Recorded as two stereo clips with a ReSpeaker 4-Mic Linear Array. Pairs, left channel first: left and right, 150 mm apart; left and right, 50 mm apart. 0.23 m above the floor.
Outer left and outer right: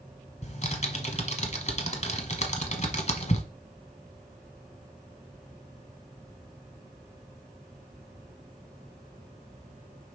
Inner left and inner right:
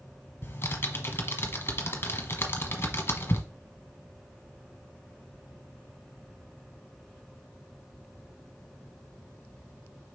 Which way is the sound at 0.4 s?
45° left (ahead or behind).